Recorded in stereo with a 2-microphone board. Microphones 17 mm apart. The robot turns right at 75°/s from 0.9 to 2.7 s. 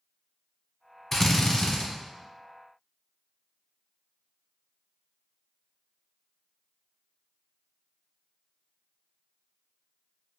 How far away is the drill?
About 0.8 m.